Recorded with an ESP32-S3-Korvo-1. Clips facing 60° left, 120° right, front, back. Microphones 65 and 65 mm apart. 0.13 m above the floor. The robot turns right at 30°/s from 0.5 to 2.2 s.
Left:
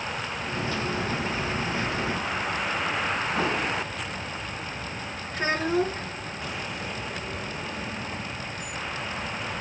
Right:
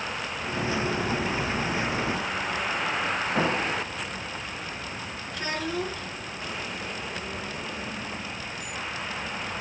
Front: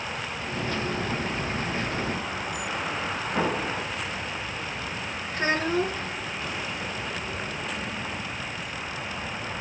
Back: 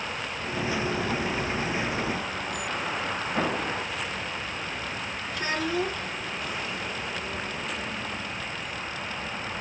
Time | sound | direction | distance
3.3 | an explosion | 80° right | 6 m
5.3 | a child speaking | 30° left | 1.6 m